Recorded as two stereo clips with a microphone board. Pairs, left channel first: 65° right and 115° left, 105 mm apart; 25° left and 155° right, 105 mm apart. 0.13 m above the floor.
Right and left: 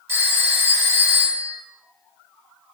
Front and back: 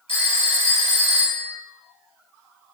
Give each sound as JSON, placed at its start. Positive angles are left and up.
{"t": 0.1, "sound": "a phone ringing", "azimuth_deg": 50, "distance_m": 1.6}